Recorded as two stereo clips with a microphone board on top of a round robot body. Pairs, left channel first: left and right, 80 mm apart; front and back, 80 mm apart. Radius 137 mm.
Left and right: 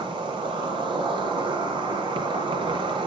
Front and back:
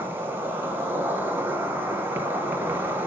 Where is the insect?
115° right, 4 m.